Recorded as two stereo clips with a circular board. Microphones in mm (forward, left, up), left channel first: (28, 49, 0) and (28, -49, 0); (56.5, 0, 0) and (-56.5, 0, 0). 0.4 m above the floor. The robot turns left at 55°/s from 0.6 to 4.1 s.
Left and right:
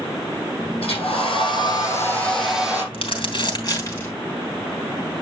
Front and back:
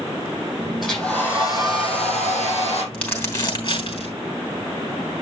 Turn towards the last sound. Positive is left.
turn(degrees=15)